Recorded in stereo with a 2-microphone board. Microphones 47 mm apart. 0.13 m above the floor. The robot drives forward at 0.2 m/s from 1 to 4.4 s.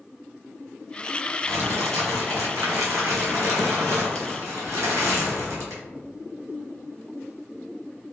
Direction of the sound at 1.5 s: 75° right (ahead or behind).